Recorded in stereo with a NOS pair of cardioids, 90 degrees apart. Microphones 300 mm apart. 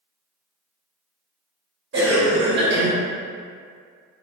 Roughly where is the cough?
Ahead right.